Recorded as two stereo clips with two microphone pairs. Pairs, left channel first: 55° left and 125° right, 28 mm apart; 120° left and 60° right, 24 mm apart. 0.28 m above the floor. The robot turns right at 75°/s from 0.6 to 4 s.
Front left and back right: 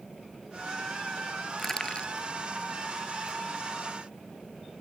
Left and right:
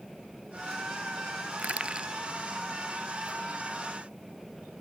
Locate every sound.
1.6 s crushing: 30° right; by 2.1 s 10° left